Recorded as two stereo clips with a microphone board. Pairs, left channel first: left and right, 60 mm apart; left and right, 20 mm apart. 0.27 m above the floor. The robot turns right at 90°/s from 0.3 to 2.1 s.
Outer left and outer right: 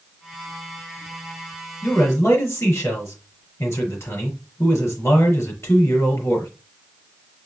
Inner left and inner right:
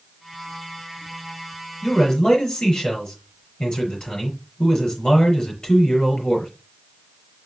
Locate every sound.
1.8 s a man speaking: 25° left (ahead or behind), 5 m; by 6.5 s 45° left (ahead or behind), 5 m